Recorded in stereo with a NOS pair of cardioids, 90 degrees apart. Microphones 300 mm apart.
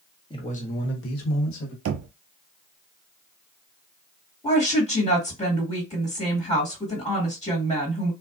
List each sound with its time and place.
0.3 s a man speaking: 15° left, 1.3 m; by 1.8 s 75° left, 1.4 m
1.9 s knocking: 50° right, 0.5 m
4.4 s a woman speaking: 15° left, 1.6 m